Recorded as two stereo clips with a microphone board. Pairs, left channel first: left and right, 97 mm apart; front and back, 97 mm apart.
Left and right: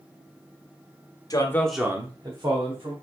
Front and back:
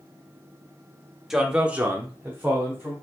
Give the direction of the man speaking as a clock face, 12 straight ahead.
9 o'clock.